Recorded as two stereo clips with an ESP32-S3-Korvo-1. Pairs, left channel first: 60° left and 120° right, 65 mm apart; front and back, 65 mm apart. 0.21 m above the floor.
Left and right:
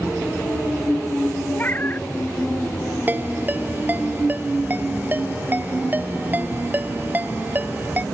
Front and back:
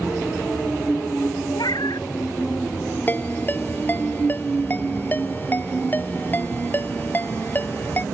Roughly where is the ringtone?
Ahead right.